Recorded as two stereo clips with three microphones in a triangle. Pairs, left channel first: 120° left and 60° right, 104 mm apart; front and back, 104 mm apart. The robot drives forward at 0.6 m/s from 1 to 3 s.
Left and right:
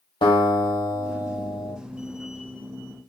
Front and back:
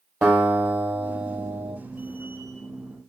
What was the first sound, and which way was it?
A guitar, 100° left.